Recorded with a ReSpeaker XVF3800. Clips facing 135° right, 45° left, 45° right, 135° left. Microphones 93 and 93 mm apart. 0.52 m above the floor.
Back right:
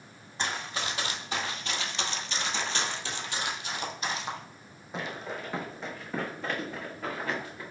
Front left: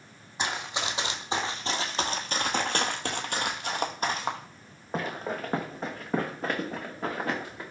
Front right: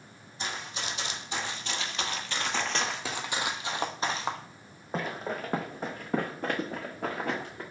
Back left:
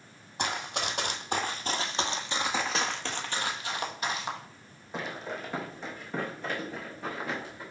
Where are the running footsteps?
125° left, 1.3 m; by 7.6 s 10° right, 3 m.